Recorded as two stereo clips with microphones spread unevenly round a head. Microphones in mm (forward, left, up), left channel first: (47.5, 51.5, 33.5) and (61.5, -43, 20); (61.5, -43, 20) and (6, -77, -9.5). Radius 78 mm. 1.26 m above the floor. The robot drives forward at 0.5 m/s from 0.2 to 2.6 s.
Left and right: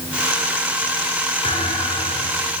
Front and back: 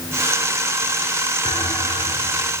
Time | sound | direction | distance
1.4 | a thud | 80° left | 10 m